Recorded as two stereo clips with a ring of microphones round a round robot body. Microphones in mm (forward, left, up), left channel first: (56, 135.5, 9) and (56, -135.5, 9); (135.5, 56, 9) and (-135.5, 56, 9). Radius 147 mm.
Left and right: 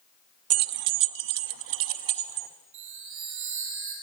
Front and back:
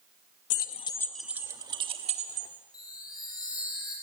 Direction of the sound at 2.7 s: 75° right.